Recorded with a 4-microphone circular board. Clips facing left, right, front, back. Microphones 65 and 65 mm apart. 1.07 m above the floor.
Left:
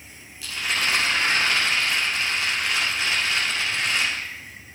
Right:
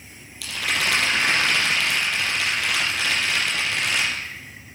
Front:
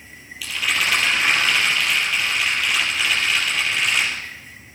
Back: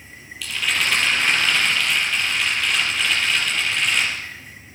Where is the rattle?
85° right, 4 m.